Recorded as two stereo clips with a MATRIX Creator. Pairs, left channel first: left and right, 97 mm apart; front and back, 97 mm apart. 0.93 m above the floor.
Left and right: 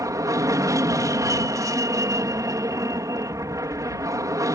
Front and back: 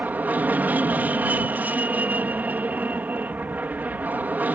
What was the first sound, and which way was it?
An aircraft, 115° right.